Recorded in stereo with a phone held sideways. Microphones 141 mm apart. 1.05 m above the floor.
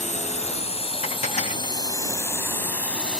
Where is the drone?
60° left (ahead or behind); by 3.2 s 5° left (ahead or behind).